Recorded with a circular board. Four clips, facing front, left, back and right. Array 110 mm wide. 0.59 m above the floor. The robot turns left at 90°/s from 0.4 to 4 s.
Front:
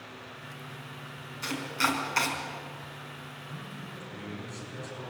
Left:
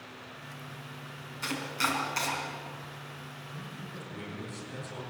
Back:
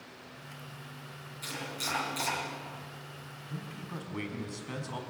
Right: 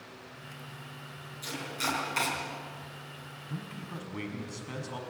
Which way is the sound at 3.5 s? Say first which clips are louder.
Right 5 dB, back 4 dB; 100° right.